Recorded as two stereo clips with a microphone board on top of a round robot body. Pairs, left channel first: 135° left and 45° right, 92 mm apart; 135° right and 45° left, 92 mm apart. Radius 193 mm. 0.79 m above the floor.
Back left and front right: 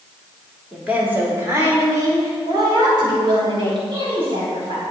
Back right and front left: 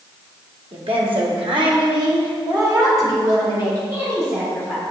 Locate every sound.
0.7 s a woman speaking: 35° left, 2.5 m; by 4.8 s 20° right, 5.5 m